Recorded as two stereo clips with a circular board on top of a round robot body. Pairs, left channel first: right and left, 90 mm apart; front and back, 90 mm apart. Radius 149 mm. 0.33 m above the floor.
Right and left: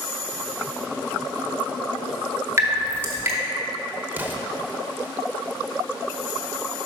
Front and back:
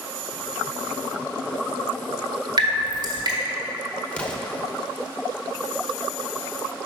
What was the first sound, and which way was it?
Dripping, 150° left.